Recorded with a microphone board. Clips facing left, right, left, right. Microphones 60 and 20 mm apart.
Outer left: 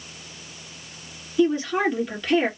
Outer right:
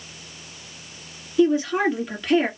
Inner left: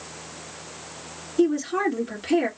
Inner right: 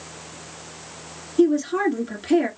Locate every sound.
1.4 s a woman speaking: 5° right (ahead or behind), 2 m